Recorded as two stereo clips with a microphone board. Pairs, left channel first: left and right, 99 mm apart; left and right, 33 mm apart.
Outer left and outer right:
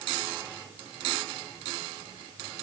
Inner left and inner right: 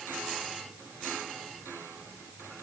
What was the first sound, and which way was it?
Only background noise.